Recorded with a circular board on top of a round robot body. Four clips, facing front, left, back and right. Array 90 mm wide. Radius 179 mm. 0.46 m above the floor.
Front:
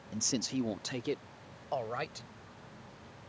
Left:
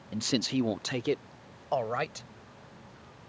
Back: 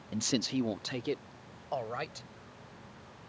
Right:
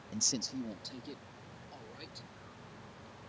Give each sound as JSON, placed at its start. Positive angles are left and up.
{"t": 0.1, "sound": "a man speaking", "azimuth_deg": 135}